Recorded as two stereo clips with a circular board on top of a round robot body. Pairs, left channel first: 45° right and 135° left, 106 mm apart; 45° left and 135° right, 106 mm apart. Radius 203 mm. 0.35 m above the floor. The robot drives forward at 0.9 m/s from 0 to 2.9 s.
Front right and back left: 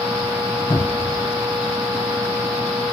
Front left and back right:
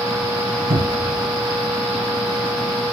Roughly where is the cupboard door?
Behind right.